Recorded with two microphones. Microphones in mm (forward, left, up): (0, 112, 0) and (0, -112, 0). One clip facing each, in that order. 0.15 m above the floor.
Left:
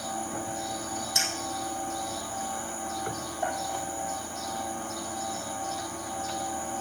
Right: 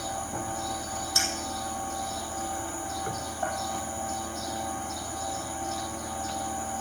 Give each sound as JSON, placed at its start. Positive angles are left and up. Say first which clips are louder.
{"t": 1.1, "sound": "a clink", "louder": "even", "side_deg": 15, "distance_m": 4.0}